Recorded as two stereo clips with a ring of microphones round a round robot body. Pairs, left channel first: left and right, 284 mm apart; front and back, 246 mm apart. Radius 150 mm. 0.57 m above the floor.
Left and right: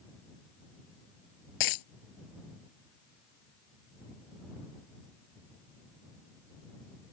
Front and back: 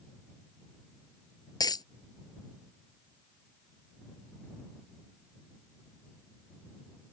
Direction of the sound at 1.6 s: 75° left.